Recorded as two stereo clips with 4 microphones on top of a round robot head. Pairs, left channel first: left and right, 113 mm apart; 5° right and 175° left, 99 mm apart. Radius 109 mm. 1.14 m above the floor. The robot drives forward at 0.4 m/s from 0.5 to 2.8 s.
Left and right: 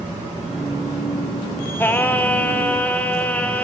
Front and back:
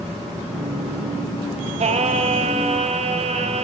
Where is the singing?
165° left, 1.6 m.